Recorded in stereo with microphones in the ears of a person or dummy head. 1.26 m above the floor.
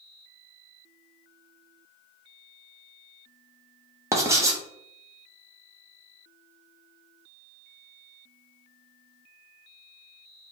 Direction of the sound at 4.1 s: 15° right (ahead or behind).